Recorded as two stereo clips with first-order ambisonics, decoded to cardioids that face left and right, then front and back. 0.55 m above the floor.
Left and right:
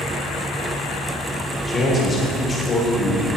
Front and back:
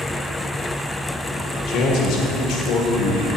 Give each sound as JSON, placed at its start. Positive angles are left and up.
{"t": 1.7, "sound": "a man speaking", "azimuth_deg": 20, "distance_m": 1.9}